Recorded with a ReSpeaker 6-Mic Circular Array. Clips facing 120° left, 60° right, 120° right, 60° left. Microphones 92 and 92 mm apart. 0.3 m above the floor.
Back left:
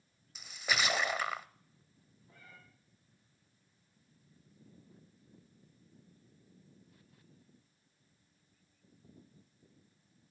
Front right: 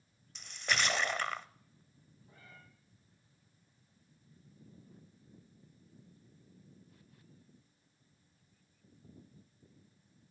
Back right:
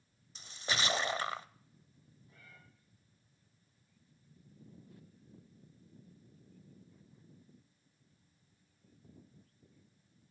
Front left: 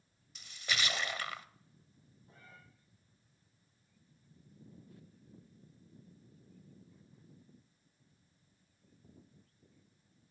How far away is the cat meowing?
About 7.5 m.